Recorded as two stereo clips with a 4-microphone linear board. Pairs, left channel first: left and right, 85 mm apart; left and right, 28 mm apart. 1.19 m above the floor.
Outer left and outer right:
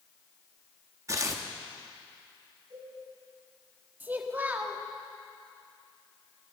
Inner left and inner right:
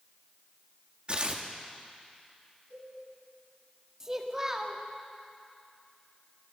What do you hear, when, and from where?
1.1 s tearing paper: 40° right (ahead or behind), 1.1 m
2.7 s a cowbell: 80° right, 7 m
4.0 s a child speaking: 20° right (ahead or behind), 1.4 m